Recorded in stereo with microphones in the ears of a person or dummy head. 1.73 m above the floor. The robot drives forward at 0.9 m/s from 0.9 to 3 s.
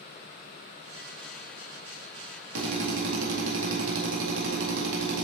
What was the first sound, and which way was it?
A drill, 65° right (ahead or behind).